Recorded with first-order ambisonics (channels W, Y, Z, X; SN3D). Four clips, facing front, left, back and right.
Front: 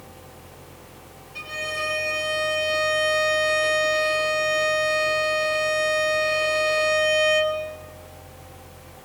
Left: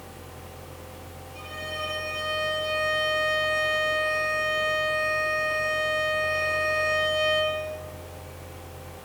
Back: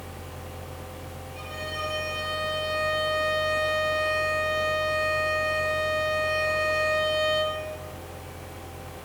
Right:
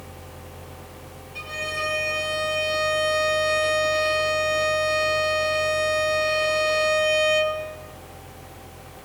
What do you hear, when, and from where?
1.4 s a violin: 35° right, 6.5 m